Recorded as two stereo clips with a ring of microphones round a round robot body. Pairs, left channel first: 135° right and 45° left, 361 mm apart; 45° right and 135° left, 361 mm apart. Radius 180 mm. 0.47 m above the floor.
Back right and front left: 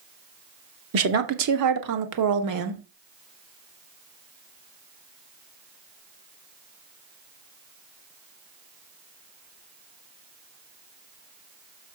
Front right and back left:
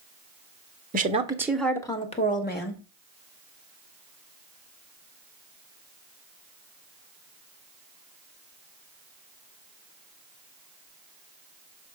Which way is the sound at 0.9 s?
80° left.